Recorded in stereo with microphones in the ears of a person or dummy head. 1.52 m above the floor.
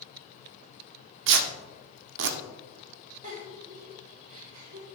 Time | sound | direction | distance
1.3 | tearing paper | 65° right (ahead or behind) | 0.8 m
3.2 | a giggle | 45° right (ahead or behind) | 2.5 m